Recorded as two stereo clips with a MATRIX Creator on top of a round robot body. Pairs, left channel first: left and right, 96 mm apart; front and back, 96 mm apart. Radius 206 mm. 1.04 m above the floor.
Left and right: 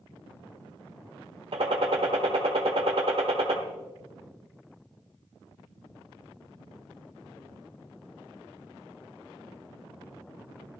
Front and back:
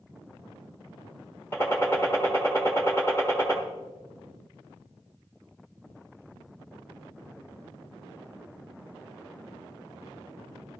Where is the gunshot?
70° right, 0.6 m.